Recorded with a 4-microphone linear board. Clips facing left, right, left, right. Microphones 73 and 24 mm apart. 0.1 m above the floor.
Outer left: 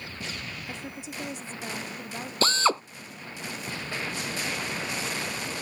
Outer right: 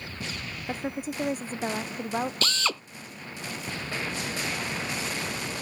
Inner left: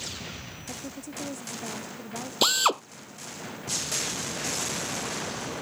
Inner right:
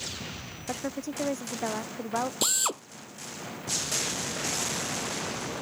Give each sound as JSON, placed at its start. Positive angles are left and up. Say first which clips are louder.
{"t": 0.7, "sound": "a woman speaking", "louder": "outer right 7 dB, inner right 7 dB", "side_deg": -40}
{"t": 2.4, "sound": "a drill", "louder": "outer left 6 dB, inner left 12 dB", "side_deg": 35}